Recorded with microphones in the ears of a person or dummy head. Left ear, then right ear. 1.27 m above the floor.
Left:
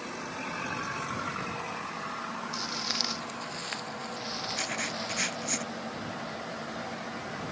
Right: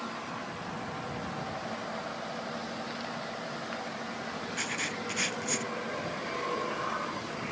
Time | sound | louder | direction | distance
2.5 | footsteps | left 6 dB | 80° left | ?
4.5 | writing | right 2 dB | centre (ahead or behind) | ?